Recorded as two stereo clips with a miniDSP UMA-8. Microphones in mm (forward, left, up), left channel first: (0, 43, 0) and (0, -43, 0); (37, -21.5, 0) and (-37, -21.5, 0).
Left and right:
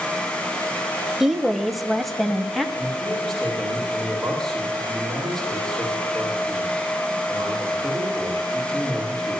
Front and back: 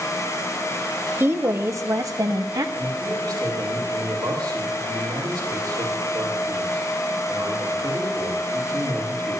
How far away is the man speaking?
About 9 m.